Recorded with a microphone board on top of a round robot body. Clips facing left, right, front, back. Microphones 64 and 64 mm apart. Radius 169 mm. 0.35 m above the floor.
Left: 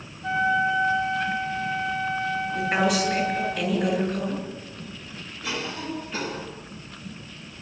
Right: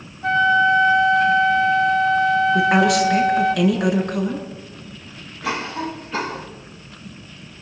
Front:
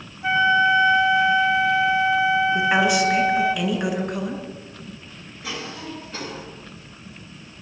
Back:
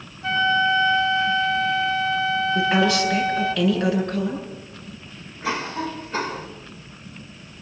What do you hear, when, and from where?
0.2 s a flute: 70° right, 1.3 m
2.5 s a woman speaking: 75° right, 8 m
5.4 s a cough: 125° right, 4 m